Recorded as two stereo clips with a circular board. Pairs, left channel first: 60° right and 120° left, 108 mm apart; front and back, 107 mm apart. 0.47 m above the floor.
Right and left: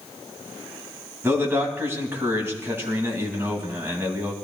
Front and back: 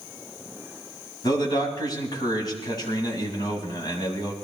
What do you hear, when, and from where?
1.2 s a man speaking: 50° left, 3 m